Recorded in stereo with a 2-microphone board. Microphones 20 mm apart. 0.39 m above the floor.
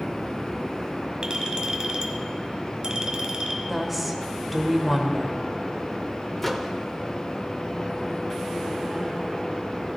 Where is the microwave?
10° left (ahead or behind), 0.9 m.